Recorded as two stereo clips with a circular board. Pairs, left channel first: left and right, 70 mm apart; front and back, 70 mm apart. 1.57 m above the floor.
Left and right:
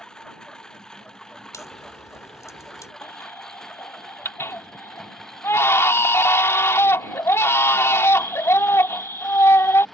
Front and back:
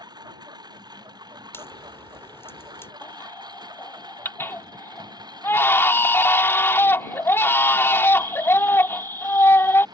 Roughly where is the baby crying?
Ahead left.